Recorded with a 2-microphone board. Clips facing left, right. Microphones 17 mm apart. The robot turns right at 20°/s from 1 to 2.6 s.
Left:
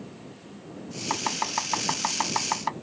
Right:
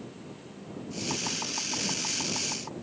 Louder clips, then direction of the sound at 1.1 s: Left 5 dB; 40° left (ahead or behind).